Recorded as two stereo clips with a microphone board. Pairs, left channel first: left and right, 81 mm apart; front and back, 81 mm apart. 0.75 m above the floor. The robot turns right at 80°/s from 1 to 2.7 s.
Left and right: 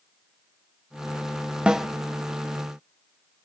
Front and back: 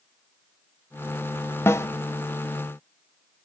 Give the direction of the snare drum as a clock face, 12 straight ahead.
1 o'clock.